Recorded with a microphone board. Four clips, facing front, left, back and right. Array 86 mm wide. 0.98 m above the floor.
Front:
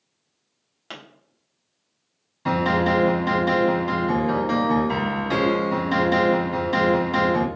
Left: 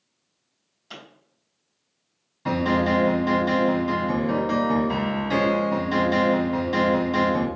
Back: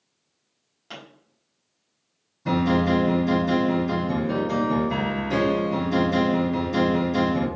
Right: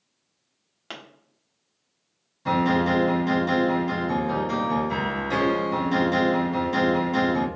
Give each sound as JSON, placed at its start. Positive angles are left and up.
{"t": 0.9, "sound": "a pop", "azimuth_deg": -60, "distance_m": 1.2}
{"t": 2.5, "sound": "a piano", "azimuth_deg": 15, "distance_m": 1.7}